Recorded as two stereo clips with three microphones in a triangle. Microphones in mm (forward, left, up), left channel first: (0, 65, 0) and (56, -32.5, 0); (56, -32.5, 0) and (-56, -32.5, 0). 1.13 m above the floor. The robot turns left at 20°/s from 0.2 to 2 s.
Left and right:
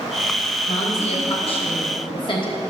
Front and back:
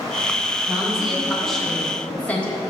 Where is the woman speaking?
105° left, 1.2 m; by 2.6 s 75° left, 1.2 m.